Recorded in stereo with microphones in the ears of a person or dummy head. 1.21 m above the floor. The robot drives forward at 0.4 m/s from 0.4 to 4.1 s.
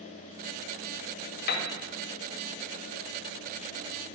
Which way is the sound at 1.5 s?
55° left (ahead or behind).